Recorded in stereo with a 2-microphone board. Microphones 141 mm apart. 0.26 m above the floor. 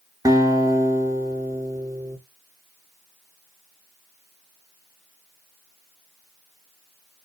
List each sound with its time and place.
0.2 s a guitar: 25° right (ahead or behind), 0.6 m